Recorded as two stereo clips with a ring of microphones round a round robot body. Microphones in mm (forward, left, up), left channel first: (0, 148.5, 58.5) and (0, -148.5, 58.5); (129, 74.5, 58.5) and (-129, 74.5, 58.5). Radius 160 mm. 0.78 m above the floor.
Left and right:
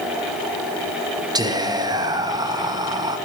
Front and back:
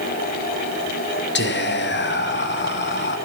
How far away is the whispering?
About 1.1 m.